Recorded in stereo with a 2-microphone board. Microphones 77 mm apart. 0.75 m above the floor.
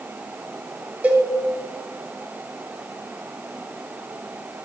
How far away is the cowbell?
About 1.1 m.